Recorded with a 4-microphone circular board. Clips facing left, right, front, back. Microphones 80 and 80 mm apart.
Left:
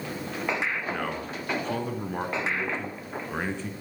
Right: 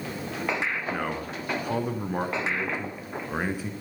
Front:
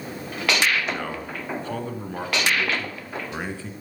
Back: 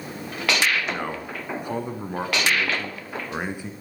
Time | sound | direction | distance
0.9 | a man speaking | 155° right | 1.1 m